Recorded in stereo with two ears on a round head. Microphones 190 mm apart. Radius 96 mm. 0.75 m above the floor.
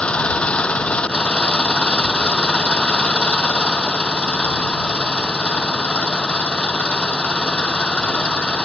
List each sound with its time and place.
0.0 s an engine running: 5° left (ahead or behind)